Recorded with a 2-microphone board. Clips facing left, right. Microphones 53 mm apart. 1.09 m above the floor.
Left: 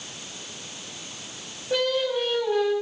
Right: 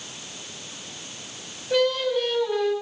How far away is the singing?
About 6 m.